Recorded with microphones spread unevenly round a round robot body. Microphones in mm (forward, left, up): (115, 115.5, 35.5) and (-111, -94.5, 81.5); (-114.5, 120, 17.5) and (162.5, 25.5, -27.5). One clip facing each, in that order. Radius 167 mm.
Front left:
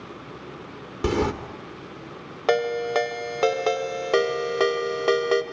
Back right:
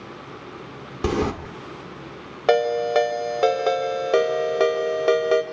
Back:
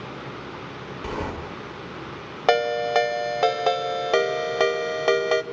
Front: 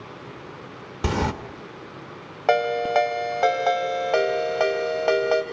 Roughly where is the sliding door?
Ahead right.